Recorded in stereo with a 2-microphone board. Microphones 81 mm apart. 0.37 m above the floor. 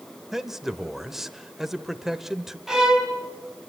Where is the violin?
5° right (ahead or behind), 3 m.